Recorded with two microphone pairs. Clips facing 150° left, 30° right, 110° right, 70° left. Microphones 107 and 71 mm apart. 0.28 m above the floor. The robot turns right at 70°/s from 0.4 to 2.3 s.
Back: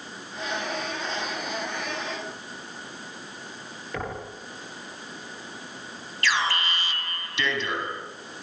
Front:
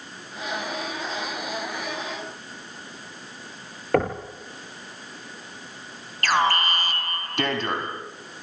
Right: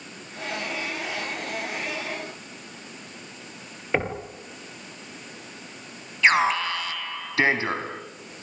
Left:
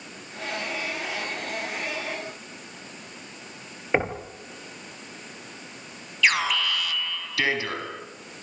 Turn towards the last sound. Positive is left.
turn(degrees=-55)